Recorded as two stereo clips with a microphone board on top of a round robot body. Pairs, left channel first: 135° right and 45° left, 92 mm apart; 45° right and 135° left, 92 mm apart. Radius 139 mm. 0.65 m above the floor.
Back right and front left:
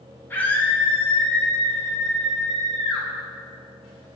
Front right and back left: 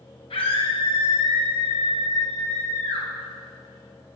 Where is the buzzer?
I don't hear a buzzer.